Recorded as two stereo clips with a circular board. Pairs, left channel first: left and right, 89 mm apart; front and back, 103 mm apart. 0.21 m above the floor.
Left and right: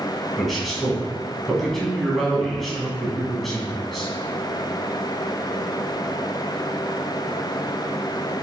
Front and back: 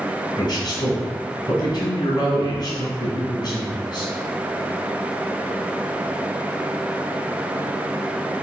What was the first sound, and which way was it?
A man speaking, straight ahead.